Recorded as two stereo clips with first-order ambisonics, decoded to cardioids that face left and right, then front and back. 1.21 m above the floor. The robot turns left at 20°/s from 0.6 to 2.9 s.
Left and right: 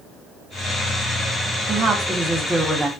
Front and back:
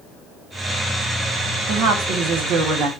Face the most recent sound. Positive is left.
turn(degrees=-175)